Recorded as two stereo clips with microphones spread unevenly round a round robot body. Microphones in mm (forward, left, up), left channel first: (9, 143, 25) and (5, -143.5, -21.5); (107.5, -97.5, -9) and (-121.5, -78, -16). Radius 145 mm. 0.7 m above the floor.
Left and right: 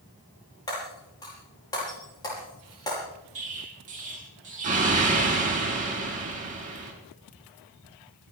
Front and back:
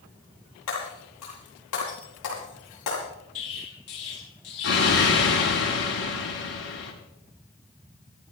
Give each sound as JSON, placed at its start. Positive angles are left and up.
{"t": 0.7, "sound": "breaking glass", "azimuth_deg": 10, "distance_m": 9.5}
{"t": 3.4, "sound": "an explosion", "azimuth_deg": -25, "distance_m": 6.0}